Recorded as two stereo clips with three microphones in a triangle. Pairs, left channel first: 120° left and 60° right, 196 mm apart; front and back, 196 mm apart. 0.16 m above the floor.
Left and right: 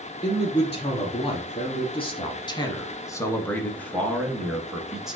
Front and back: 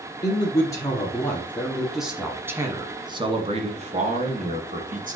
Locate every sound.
0.2 s a man speaking: 65° left, 1.8 m; by 5.2 s 145° right, 1.8 m